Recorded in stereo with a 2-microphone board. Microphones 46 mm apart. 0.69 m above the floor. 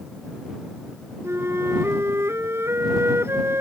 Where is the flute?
70° right (ahead or behind).